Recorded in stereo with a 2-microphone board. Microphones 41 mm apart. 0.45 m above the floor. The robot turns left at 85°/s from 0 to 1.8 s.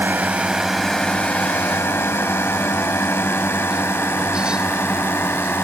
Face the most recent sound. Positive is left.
turn(degrees=60)  # may be behind; listen again after turning